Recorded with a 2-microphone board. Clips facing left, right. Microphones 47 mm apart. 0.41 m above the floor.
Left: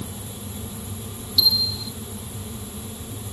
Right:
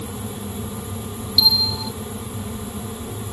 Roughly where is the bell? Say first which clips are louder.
Right 3 dB; right.